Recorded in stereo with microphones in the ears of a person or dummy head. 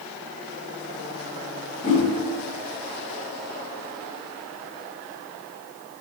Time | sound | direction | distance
1.8 | a whoosh | 30° left (ahead or behind) | 1.1 m